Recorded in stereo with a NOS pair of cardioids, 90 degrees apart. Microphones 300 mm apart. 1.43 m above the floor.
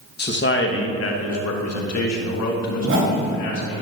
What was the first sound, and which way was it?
A man speaking, 35° left.